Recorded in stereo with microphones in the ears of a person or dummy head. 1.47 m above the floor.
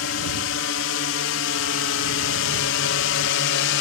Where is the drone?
80° left; by 3.8 s 65° left (ahead or behind).